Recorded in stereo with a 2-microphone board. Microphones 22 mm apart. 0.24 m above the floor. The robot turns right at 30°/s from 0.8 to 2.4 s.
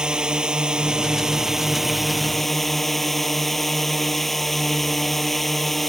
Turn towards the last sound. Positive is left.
turn(degrees=10)